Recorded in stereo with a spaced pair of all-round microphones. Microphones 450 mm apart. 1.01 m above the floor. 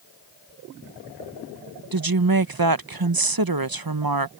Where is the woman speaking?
50° right (ahead or behind).